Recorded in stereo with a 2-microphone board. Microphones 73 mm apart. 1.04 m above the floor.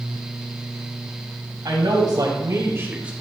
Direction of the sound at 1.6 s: 70° right (ahead or behind).